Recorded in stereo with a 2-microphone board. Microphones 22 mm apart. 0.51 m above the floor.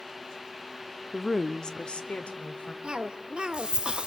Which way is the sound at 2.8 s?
40° right (ahead or behind).